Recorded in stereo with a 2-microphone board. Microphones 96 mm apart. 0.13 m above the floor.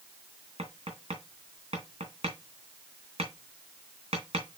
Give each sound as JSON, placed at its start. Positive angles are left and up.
{"t": 0.6, "sound": "tapping", "side_deg": -75, "distance_m": 3.0}